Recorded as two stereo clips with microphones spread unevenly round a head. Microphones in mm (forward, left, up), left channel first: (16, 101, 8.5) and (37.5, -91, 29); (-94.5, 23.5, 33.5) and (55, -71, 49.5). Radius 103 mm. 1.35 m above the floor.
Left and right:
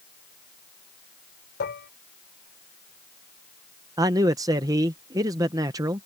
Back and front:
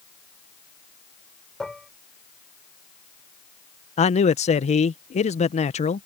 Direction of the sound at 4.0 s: 160° right.